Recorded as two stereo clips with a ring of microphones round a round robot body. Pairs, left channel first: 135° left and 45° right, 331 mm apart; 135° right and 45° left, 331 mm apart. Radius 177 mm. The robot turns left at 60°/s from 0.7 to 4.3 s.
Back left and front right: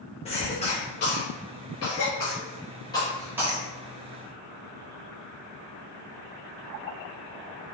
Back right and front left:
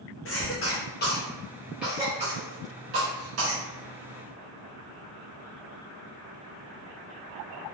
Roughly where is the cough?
Behind.